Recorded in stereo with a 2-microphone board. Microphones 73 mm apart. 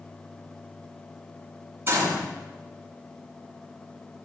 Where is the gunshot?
35° right (ahead or behind), 8 m.